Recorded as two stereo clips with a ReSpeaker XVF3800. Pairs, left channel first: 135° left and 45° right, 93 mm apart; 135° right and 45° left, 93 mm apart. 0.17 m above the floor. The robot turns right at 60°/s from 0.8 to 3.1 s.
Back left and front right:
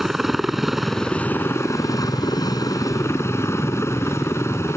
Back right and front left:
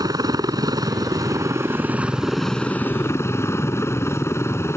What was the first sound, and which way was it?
A helicopter, 40° left.